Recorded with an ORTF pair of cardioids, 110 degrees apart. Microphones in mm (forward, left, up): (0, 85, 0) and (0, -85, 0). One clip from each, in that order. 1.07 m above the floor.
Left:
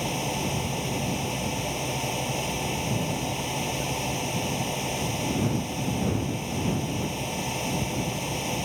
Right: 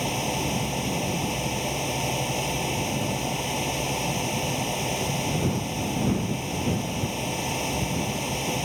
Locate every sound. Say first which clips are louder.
0.0 s a fan: right 2 dB; 10° right